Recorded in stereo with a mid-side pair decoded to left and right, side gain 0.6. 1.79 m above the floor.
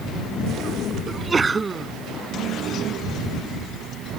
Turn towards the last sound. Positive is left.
turn(degrees=-20)